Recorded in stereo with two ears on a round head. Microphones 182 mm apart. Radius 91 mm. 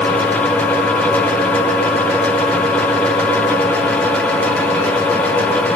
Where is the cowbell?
I don't hear a cowbell.